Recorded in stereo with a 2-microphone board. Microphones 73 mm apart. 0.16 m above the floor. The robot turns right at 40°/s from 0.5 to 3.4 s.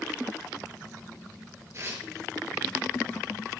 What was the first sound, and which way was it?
Tearing paper, 40° right (ahead or behind).